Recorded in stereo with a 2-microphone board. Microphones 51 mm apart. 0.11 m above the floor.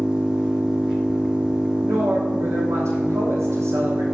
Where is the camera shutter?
No camera shutter in this recording.